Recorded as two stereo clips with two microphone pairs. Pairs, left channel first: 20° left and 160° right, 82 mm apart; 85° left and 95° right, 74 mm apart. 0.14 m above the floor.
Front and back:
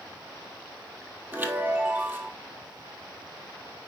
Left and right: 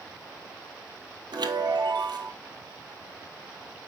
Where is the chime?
95° right, 0.9 m.